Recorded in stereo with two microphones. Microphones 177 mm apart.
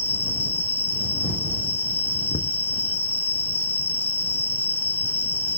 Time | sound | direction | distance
0.0 | an insect | 60° left (ahead or behind) | ?
2.3 | knocking | 85° left | ?